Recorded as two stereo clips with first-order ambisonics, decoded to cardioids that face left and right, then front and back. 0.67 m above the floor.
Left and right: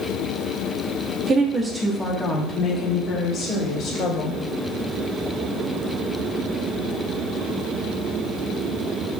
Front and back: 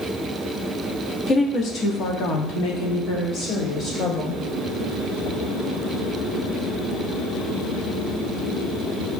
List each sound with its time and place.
1.3 s a woman speaking: 40° right, 1.3 m; by 4.4 s 50° left, 2.5 m